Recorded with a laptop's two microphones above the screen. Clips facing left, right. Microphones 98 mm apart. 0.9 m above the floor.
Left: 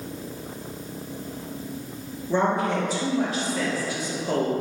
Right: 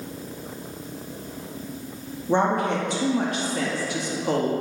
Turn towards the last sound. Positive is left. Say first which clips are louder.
# right 1 dB
turn(degrees=-65)  # may be behind; listen again after turning